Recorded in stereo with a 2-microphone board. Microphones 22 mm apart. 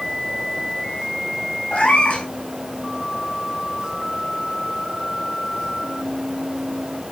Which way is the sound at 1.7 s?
70° left (ahead or behind).